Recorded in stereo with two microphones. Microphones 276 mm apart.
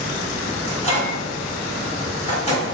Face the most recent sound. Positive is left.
turn(degrees=25)  # may be behind; listen again after turning